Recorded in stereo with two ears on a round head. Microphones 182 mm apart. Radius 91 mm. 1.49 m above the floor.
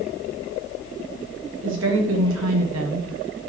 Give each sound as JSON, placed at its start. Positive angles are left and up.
{"t": 1.6, "sound": "a woman speaking", "side_deg": -60, "distance_m": 2.0}